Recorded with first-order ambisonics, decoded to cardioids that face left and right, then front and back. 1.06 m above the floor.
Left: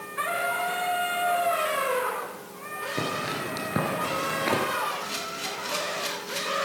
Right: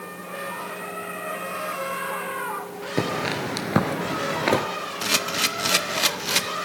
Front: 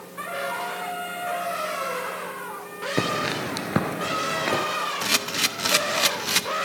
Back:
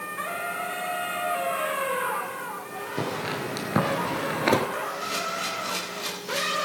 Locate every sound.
3.0 s footsteps: 40° right, 1.3 m; by 4.6 s 145° right, 1.1 m
5.0 s a camera shutter: 40° right, 0.7 m